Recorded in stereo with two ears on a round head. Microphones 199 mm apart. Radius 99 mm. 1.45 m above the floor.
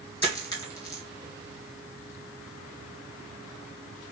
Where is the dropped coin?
15° left (ahead or behind), 2.5 m.